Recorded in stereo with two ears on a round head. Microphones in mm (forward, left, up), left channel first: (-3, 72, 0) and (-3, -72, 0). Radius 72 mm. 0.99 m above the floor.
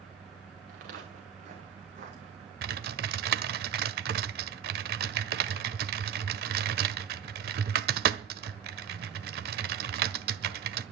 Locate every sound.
0.7 s footsteps: 55° right (ahead or behind), 4 m; by 2.5 s 40° right (ahead or behind), 5 m
2.6 s typing on a keyboard: 65° right (ahead or behind), 1.3 m